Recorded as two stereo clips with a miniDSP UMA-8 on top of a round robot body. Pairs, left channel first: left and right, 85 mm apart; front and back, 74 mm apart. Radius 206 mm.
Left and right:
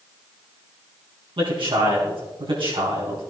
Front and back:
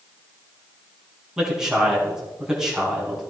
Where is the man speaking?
100° right, 5 m.